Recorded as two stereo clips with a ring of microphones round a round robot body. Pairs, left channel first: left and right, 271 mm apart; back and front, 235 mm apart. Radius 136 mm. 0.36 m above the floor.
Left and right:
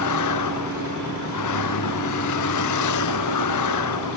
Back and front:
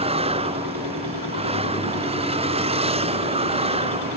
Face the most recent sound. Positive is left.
turn(degrees=65)